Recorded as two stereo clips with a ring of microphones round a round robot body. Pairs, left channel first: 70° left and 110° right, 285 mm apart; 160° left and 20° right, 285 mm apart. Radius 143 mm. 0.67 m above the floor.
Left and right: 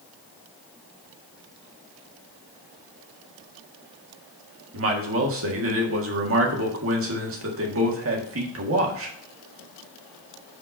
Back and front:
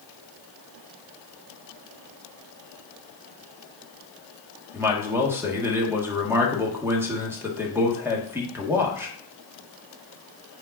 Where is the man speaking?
100° right, 1.6 m.